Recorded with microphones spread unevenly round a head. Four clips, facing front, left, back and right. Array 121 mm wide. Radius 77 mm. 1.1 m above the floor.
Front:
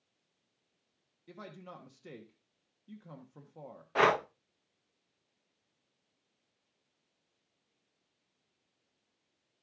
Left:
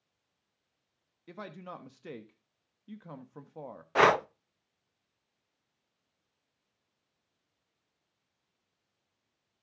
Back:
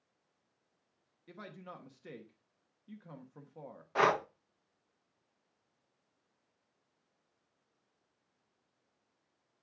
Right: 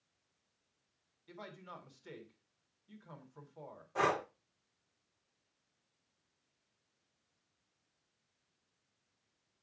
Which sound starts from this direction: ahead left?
Breathing, at 4.0 s.